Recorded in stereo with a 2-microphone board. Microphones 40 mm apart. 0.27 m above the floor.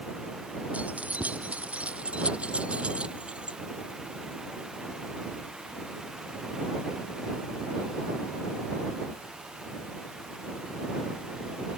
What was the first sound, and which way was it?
Keys jangling, 35° right (ahead or behind).